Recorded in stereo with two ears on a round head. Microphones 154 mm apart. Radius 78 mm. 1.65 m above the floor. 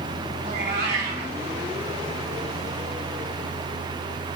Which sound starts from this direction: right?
A cat meowing, at 0.4 s.